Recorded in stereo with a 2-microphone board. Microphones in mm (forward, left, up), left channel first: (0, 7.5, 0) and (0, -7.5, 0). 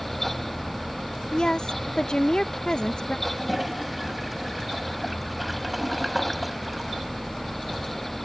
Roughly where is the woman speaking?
Left.